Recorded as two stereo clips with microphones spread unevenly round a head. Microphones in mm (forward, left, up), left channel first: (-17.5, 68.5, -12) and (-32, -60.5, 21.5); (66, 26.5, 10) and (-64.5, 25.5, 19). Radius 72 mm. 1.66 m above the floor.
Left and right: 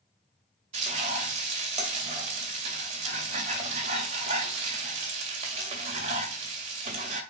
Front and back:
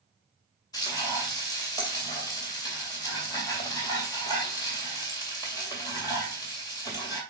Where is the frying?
65° right, 2.5 m.